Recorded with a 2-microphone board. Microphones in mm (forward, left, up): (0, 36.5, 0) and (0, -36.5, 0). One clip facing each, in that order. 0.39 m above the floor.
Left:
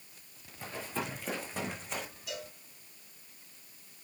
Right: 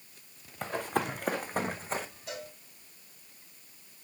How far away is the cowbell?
About 2 m.